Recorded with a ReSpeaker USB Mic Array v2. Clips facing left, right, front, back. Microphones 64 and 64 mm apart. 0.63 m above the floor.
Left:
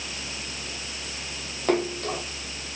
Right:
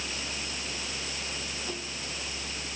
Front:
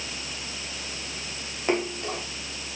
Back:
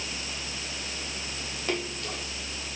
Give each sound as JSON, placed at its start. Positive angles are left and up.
{"t": 1.7, "sound": "a splash", "azimuth_deg": 65}